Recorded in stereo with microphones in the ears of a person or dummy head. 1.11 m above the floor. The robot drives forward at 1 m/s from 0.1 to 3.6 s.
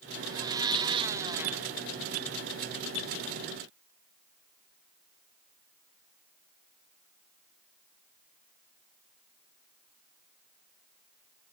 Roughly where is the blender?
Centre.